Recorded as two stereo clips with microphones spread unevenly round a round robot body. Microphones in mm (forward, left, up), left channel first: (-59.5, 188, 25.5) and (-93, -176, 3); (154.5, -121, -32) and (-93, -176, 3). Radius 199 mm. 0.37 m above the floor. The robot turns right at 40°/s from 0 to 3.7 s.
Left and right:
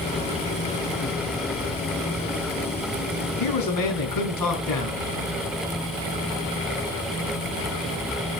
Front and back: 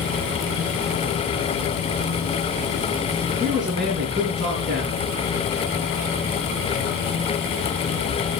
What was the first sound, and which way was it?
A man speaking, 110° left.